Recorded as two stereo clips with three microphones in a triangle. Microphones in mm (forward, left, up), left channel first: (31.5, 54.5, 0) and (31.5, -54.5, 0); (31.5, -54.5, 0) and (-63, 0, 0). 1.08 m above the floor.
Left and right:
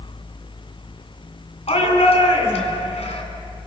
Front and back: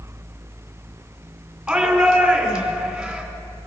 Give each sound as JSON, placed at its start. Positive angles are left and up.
{"t": 1.7, "sound": "a shout", "azimuth_deg": 65, "distance_m": 2.5}